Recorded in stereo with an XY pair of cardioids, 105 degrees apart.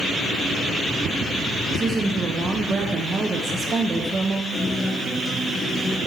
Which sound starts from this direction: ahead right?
A woman speaking, at 1.7 s.